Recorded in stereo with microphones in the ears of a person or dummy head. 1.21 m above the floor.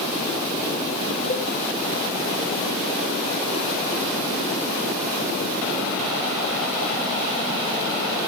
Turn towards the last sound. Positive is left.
turn(degrees=40)  # may be behind; listen again after turning